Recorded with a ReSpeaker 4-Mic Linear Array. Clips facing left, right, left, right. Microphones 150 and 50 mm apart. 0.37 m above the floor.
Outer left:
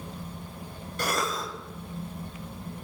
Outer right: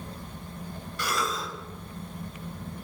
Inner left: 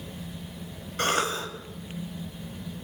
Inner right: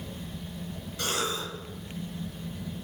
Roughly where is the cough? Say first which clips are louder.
Outer left 1 dB, inner left 5 dB; left.